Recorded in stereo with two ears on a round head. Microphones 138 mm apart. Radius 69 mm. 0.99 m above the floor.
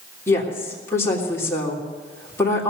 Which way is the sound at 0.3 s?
20° left (ahead or behind).